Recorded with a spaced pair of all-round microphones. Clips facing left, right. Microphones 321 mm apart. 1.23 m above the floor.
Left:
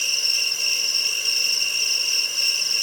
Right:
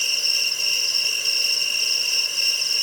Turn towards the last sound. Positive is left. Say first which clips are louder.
# right 1 dB
turn(degrees=5)  # may be behind; listen again after turning